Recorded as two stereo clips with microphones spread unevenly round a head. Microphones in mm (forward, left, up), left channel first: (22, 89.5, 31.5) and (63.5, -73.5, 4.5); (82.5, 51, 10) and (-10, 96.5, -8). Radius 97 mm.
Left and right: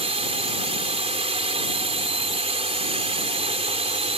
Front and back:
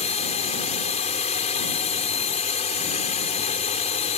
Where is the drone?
20° right.